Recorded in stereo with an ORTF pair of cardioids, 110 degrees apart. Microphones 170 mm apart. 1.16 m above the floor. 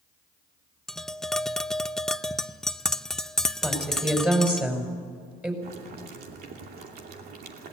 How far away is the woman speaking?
About 5.5 m.